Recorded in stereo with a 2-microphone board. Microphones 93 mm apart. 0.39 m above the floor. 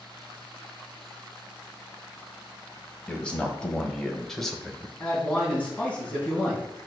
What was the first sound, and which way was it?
A man speaking, 10° left (ahead or behind).